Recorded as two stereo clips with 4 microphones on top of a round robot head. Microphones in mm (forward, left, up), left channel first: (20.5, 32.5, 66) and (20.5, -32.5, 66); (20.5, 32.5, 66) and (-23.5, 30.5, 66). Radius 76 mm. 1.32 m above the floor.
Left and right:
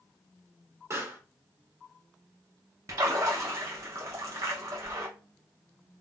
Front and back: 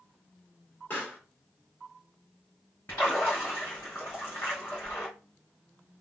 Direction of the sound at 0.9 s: 45° right.